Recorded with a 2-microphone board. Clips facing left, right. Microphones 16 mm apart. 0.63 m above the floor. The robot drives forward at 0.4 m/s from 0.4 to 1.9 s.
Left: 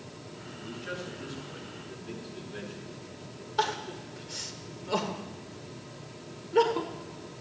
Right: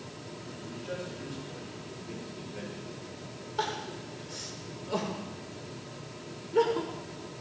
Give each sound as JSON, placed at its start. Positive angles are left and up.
{"t": 0.6, "sound": "a man speaking", "side_deg": 55, "distance_m": 7.0}
{"t": 3.6, "sound": "crying", "side_deg": 25, "distance_m": 1.5}